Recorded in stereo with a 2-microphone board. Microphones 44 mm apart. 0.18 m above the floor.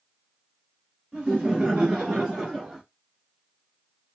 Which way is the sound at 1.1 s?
20° right (ahead or behind).